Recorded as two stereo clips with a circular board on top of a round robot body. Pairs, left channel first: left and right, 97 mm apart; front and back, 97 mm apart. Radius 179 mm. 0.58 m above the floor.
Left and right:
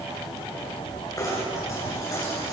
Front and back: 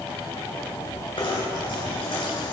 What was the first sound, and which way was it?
Knocking, 35° left.